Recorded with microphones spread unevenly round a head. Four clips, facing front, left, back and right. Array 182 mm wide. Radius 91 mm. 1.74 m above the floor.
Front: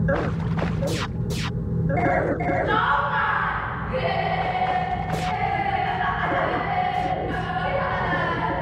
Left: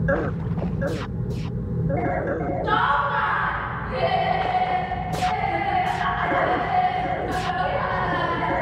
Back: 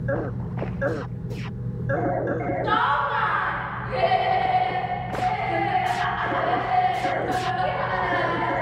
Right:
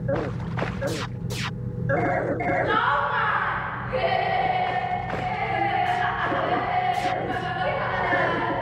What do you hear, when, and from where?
0.0 s a fan: 45° left, 0.9 m
2.6 s laughter: 150° left, 4.5 m